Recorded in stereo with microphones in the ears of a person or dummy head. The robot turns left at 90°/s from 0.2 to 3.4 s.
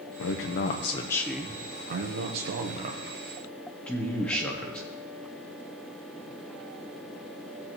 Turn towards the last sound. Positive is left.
turn(degrees=175)